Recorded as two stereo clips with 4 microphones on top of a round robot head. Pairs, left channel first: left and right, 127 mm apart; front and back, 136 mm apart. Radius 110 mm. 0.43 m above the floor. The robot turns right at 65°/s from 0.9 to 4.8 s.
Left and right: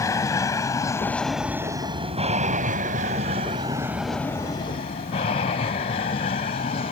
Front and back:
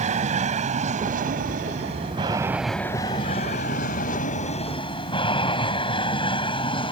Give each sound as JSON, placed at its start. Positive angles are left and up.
{"t": 0.0, "sound": "an aircraft", "azimuth_deg": 155}